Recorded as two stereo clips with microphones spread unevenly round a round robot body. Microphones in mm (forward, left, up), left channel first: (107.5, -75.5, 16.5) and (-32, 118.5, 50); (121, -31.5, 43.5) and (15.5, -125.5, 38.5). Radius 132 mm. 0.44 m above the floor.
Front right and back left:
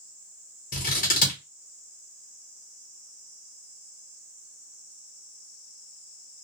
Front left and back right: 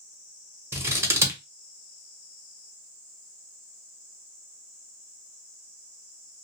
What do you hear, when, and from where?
0.7 s scissors: 75° right, 1.1 m